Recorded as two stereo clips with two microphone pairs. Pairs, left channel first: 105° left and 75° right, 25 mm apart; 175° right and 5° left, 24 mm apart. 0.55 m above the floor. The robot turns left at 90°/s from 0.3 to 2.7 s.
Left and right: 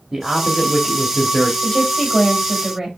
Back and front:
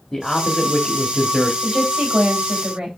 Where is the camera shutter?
No camera shutter in this recording.